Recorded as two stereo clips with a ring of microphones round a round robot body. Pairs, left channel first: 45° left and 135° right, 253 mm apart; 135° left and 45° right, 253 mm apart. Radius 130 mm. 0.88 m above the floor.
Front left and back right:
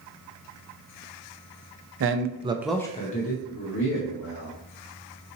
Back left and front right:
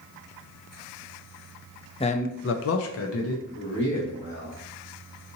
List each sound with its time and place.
2.0 s a man speaking: 160° right, 0.6 m; by 4.5 s 80° left, 1.6 m